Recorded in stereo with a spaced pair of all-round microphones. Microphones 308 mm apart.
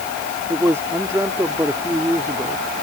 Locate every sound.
0.5 s a man speaking: 10° right (ahead or behind)